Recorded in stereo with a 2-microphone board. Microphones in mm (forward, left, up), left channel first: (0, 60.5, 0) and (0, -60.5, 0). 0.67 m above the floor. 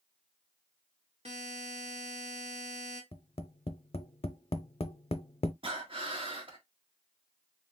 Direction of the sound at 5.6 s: 50° right (ahead or behind).